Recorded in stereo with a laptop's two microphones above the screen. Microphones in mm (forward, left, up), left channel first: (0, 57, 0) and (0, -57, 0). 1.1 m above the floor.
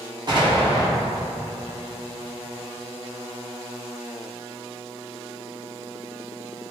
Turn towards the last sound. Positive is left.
turn(degrees=-40)  # may be behind; listen again after turning